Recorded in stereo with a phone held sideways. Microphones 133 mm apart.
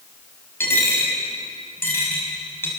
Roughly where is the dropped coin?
Centre.